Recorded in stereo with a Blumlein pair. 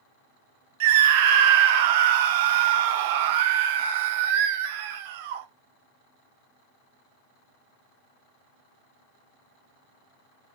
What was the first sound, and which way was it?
A scream, 50° right.